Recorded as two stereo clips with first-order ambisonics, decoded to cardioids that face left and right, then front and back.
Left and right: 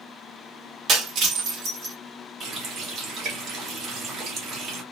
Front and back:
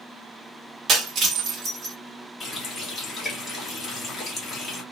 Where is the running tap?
65° right, 1.1 m.